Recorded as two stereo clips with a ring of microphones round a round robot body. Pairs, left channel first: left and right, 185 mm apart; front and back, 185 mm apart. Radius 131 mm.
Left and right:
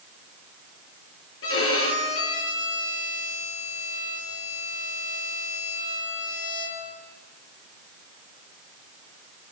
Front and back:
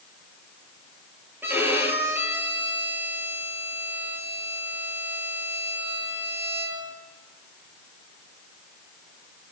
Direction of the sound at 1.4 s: 100° left.